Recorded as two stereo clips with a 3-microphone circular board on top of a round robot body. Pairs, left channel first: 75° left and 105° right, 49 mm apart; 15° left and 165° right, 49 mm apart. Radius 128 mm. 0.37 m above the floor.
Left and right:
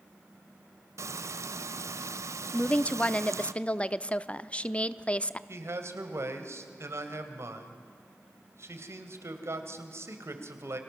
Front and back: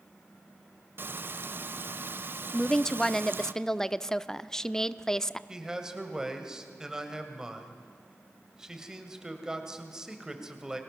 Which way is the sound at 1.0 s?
120° right.